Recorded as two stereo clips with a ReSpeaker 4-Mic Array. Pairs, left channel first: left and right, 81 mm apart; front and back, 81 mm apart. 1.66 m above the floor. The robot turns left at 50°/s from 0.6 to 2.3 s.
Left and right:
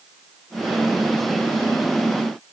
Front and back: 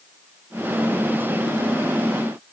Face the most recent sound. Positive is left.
No sound to turn to.